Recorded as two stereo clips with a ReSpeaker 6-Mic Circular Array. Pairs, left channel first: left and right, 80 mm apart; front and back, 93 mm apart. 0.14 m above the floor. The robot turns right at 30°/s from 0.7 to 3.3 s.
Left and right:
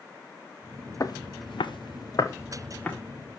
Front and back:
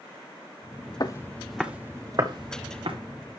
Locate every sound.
1.0 s footsteps: 45° left, 1.1 m; by 3.0 s 170° left, 2.5 m